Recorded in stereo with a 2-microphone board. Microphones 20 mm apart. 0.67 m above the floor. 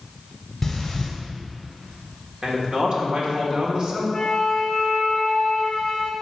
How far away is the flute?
About 0.7 m.